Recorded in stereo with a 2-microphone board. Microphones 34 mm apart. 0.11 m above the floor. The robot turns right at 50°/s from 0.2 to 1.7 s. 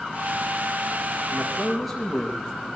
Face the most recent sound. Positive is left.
turn(degrees=0)  # may be behind; listen again after turning